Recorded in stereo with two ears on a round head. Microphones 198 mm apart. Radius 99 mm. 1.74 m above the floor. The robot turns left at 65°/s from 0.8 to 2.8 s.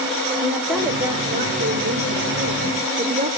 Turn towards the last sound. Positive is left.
turn(degrees=-135)